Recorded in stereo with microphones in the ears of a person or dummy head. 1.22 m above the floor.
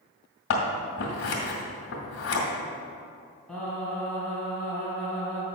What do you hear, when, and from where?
0.5 s scissors: 65° left (ahead or behind), 2 m
3.5 s singing: 5° left (ahead or behind), 2.5 m